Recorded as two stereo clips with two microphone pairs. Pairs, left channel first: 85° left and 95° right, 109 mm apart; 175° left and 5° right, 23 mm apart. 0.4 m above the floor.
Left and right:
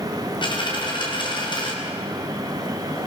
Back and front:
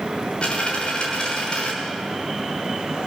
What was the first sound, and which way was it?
A dropped coin, 130° left.